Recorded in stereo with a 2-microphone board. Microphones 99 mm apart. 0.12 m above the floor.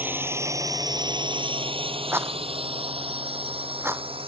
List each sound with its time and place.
0.0 s a drone: 20° right (ahead or behind); by 4.3 s 65° right (ahead or behind)
2.1 s a rattle: 25° right (ahead or behind)